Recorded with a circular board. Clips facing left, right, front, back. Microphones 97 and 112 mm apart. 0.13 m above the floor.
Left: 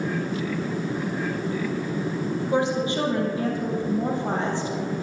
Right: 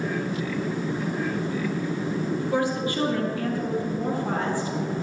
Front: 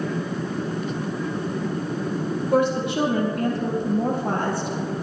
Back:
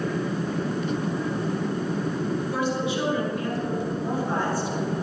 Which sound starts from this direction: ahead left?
A woman speaking, at 2.4 s.